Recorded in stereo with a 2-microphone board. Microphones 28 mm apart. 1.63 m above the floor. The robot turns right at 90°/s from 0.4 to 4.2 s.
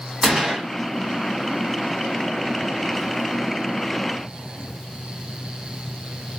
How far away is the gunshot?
About 2.5 m.